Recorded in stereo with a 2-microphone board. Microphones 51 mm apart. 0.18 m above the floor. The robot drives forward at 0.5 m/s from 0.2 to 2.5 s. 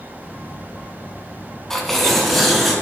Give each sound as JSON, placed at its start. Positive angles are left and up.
{"t": 1.7, "sound": "tearing paper", "side_deg": 10, "distance_m": 0.5}